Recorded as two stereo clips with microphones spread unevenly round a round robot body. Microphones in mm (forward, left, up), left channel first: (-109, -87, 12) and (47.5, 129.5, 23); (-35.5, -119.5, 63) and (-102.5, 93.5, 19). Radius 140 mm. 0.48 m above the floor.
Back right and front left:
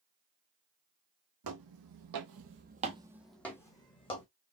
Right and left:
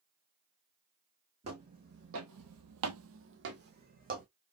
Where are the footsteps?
35° left, 1.3 m; by 4.2 s 165° left, 1.6 m.